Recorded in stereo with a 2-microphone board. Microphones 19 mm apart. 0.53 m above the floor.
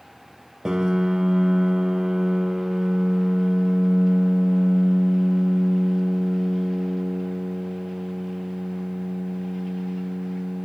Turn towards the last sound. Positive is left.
turn(degrees=-30)  # may be behind; listen again after turning